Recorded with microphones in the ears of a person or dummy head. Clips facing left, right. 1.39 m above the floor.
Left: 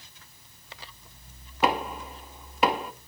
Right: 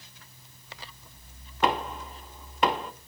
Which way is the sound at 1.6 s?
10° left (ahead or behind).